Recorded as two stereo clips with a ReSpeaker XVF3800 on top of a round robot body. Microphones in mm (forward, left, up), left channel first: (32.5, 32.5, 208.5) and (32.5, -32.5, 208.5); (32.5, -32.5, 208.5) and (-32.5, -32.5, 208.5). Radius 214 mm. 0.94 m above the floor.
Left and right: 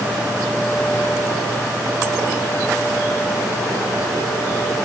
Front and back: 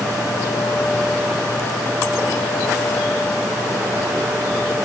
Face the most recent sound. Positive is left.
No sound to turn to.